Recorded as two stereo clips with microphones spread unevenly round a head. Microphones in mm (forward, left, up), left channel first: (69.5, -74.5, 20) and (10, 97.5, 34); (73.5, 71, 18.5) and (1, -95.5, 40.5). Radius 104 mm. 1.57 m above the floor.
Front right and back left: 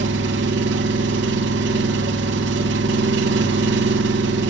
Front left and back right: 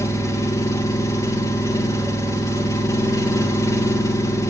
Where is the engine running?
145° left, 1.3 m.